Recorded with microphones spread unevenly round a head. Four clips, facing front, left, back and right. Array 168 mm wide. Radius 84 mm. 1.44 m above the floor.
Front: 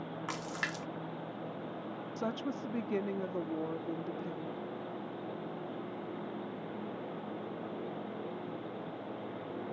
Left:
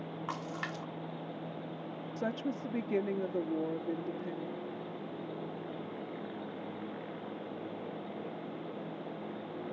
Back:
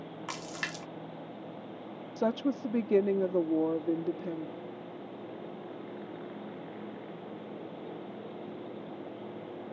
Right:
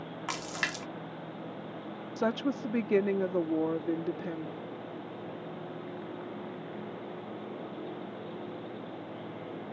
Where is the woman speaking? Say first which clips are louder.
Right 6 dB, back 8 dB; 165° right.